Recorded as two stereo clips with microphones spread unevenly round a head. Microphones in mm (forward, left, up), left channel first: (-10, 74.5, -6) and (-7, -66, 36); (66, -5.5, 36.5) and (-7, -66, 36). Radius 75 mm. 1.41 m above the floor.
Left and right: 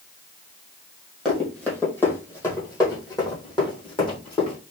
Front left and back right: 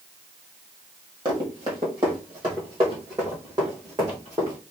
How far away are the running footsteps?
About 1.6 m.